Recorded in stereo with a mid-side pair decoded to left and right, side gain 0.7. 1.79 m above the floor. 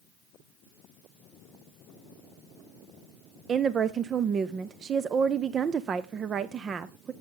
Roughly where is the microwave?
No microwave in this recording.